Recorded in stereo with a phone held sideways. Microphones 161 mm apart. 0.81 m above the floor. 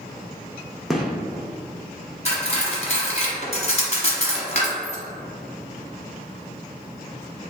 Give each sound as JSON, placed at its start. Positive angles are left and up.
{"t": 0.9, "sound": "a gunshot", "side_deg": 0, "distance_m": 0.5}
{"t": 2.2, "sound": "cutlery clinking", "side_deg": 45, "distance_m": 0.9}